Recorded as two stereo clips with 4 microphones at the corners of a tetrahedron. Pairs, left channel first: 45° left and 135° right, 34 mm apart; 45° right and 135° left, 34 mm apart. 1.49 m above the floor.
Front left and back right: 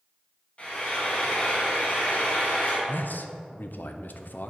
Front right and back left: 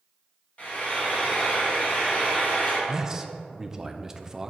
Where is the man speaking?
60° left, 0.6 m.